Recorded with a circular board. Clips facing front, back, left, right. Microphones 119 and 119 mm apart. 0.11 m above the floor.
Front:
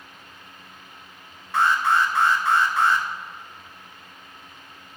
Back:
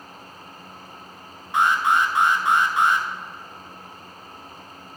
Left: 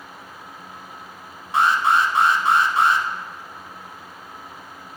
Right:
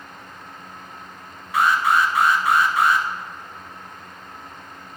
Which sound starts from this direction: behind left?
An alarm, at 1.5 s.